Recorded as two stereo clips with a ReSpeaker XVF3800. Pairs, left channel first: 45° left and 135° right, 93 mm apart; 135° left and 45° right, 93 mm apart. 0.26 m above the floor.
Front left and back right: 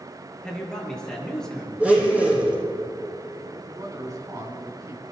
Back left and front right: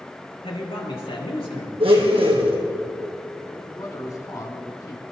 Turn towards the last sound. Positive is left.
turn(degrees=180)